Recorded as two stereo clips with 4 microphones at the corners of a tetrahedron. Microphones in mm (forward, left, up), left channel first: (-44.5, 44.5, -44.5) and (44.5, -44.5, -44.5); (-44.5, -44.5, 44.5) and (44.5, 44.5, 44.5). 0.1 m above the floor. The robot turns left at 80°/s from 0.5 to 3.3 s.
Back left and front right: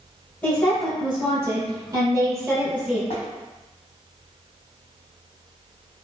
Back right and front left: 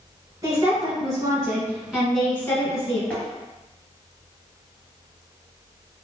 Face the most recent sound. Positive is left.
turn(degrees=130)